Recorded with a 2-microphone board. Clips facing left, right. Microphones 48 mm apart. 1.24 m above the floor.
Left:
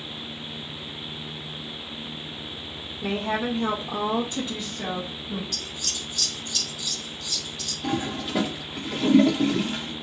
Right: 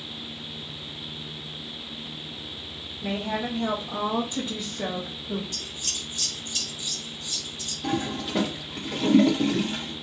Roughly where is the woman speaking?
Left.